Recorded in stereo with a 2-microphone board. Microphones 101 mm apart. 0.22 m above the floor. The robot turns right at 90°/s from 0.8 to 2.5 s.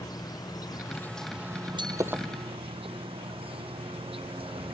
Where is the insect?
140° left; by 4.8 s 70° right.